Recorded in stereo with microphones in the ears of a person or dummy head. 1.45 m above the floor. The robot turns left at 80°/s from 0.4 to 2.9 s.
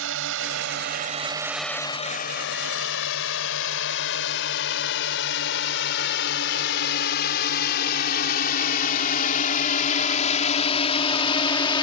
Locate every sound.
0.0 s a drone: 80° right; by 11.8 s 25° left (ahead or behind)